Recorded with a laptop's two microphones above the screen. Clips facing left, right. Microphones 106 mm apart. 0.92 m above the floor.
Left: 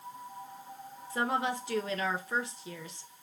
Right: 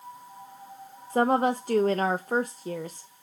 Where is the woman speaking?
45° right (ahead or behind), 0.5 m.